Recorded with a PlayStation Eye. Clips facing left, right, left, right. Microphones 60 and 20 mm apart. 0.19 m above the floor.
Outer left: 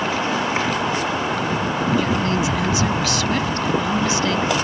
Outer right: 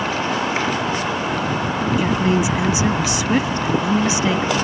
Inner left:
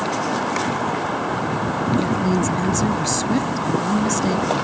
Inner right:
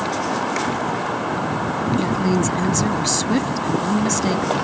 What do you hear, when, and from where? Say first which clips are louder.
2.0 s a woman speaking: outer right 2 dB, even; 20° right (ahead or behind)